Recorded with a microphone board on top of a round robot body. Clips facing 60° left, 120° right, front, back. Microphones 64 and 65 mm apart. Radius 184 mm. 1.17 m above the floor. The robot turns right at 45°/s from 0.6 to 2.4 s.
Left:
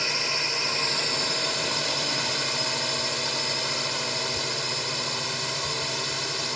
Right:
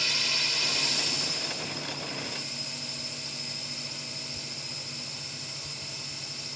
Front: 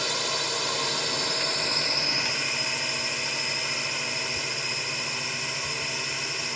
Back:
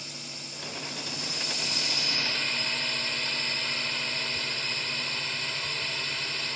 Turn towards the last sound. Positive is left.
turn(degrees=75)